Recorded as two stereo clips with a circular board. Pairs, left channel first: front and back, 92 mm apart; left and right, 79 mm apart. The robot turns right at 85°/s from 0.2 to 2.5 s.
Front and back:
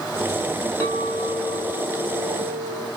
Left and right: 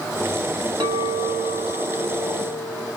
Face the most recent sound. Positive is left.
turn(degrees=90)